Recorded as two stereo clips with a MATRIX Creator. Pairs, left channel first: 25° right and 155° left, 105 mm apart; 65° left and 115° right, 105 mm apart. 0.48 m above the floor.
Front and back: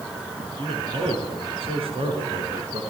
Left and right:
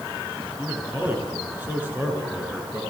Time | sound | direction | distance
0.6 | a man speaking | 175° left | 8 m